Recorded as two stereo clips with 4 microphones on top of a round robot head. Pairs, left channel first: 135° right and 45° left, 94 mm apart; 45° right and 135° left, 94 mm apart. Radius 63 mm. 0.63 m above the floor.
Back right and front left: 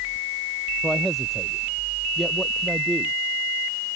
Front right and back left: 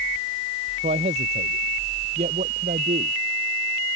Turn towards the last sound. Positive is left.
turn(degrees=140)